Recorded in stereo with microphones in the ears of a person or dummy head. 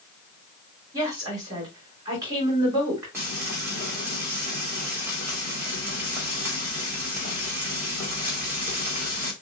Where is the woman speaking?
15° right (ahead or behind), 3 m.